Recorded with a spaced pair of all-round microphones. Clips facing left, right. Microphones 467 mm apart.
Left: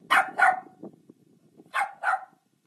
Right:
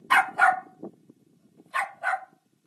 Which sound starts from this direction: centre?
A dog barking, at 0.1 s.